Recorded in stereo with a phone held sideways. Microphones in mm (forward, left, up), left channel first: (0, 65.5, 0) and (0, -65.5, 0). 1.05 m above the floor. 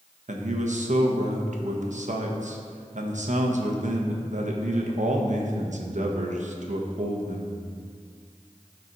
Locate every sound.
0.3 s a man speaking: 65° right (ahead or behind), 1.1 m